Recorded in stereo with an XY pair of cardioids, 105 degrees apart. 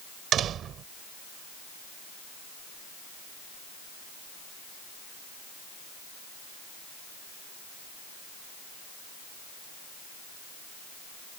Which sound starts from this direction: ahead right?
A door slam, at 0.3 s.